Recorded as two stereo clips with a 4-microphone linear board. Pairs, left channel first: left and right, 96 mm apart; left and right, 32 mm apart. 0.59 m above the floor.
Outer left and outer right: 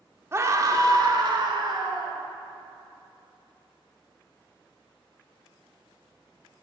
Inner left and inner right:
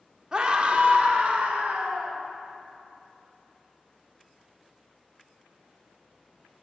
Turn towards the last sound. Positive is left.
turn(degrees=-60)  # may be behind; listen again after turning